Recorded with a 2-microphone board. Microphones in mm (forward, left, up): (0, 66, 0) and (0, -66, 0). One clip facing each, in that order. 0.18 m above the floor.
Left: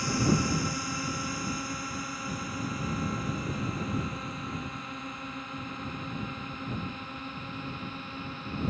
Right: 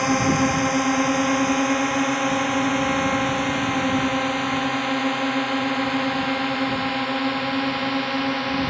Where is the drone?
70° right (ahead or behind); by 8.7 s 85° right.